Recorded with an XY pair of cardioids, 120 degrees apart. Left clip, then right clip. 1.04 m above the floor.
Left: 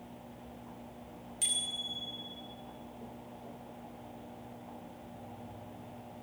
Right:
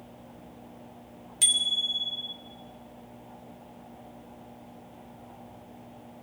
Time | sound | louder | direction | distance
1.4 | a bicycle bell | right 10 dB | 45° right | 3 m